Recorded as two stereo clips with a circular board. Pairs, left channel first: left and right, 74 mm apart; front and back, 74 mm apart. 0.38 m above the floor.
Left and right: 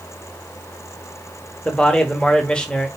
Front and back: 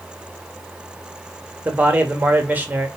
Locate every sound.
1.6 s a man speaking: 150° left, 0.9 m